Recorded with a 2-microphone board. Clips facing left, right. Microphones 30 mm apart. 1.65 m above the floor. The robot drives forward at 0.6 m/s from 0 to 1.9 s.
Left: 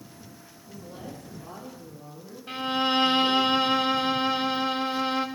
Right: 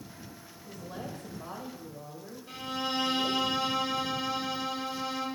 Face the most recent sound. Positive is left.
turn(degrees=45)  # may be behind; listen again after turning